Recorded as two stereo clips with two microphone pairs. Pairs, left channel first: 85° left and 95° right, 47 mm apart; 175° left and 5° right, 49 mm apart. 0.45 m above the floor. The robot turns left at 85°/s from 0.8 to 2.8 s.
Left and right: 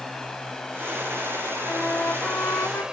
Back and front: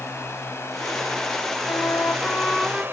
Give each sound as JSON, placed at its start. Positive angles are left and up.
{"t": 0.0, "sound": "a drone", "azimuth_deg": 165}
{"t": 1.7, "sound": "a flute", "azimuth_deg": 170}